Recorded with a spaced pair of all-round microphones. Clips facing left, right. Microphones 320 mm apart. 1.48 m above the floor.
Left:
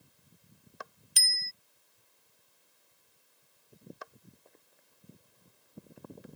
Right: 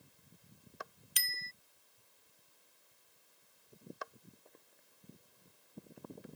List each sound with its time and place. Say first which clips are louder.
1.2 s a bicycle bell: left 1 dB; 55° left (ahead or behind)